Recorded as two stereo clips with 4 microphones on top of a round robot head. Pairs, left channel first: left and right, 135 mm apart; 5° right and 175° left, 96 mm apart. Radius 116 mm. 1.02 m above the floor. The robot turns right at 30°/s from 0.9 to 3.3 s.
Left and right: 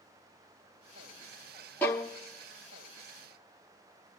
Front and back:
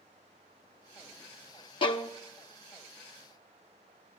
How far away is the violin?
About 0.7 m.